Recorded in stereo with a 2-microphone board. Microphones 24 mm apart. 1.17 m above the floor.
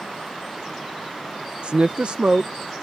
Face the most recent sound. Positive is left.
turn(degrees=-50)  # may be behind; listen again after turning